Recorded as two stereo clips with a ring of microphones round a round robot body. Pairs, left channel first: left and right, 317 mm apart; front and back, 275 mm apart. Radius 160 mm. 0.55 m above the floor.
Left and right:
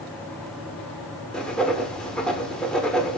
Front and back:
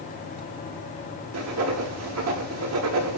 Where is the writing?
175° left, 1.3 m.